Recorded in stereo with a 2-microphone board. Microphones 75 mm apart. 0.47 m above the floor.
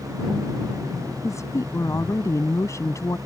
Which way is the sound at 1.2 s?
45° left (ahead or behind).